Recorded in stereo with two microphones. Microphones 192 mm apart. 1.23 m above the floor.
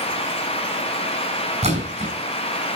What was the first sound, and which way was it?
A splash, 35° right (ahead or behind).